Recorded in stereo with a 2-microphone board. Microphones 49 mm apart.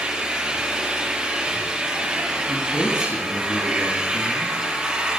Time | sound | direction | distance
0.0 | an engine running | 20° right (ahead or behind) | 4 m
2.5 | a man speaking | 60° left (ahead or behind) | 5 m